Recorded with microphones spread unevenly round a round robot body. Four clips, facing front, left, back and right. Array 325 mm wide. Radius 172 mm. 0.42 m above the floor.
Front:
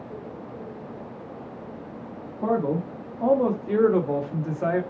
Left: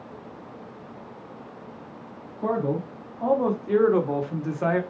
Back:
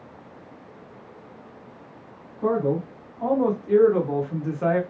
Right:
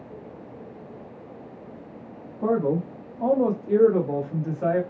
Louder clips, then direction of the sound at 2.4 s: Right 3 dB, back 1 dB; 35° right.